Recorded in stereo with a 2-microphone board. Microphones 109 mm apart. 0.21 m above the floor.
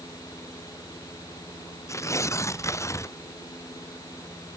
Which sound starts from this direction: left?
Tearing paper, at 1.9 s.